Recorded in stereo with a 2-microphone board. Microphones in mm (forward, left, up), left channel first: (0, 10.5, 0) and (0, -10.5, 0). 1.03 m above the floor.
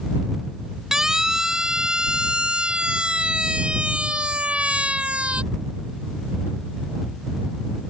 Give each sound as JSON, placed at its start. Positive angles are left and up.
{"t": 0.9, "sound": "a siren", "side_deg": -25}